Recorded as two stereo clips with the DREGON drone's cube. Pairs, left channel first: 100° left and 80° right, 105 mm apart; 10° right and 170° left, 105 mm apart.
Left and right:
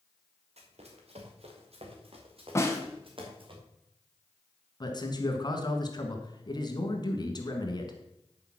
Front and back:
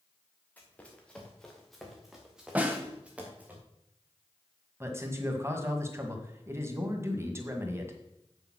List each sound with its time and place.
0.6 s running footsteps: 85° right, 2.5 m; by 3.5 s 115° right, 3.5 m
2.5 s a snare drum: 115° left, 1.5 m
4.8 s a man speaking: 120° left, 1.7 m